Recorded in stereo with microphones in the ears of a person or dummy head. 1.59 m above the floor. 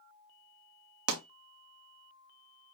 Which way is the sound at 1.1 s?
85° right.